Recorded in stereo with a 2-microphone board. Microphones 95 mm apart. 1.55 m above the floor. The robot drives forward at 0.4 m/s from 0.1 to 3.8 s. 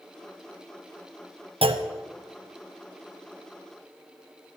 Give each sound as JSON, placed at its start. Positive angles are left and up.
{"t": 1.6, "sound": "a clunk", "side_deg": -70, "distance_m": 0.8}